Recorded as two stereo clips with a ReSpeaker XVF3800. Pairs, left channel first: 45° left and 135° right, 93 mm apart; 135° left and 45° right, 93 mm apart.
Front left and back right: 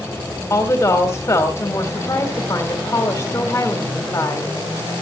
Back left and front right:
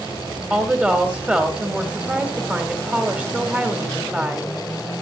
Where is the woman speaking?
20° left, 1.5 m.